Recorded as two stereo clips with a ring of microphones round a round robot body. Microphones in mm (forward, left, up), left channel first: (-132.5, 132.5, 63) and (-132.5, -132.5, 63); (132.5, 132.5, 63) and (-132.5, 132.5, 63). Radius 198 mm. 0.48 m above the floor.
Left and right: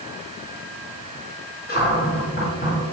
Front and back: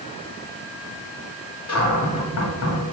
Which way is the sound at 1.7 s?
30° left.